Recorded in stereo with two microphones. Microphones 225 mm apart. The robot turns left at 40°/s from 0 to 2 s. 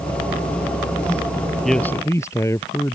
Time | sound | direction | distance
1.6 | a man speaking | centre (ahead or behind) | ?